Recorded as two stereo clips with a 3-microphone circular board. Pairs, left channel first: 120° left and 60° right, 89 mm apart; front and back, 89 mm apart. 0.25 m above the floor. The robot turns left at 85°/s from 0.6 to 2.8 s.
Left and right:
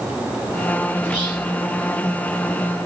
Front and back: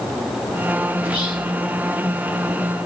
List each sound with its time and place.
1.0 s whispering: 25° left, 2.5 m; by 1.5 s 20° right, 2.5 m